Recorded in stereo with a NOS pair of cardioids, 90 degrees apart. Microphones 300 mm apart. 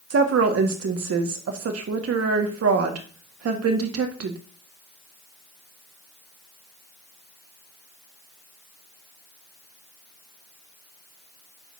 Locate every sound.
0.1 s a woman speaking: 50° right, 1.8 m